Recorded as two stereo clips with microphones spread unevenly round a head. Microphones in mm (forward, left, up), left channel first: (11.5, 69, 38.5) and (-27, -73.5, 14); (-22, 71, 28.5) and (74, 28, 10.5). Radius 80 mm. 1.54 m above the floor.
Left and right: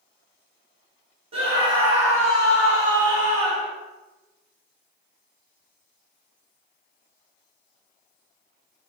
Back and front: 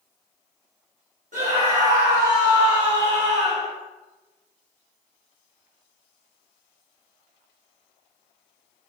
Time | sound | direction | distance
1.3 | a scream | 50° right | 1.8 m